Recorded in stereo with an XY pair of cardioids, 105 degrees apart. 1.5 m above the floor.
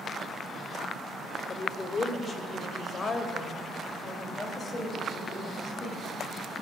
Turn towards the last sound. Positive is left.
turn(degrees=30)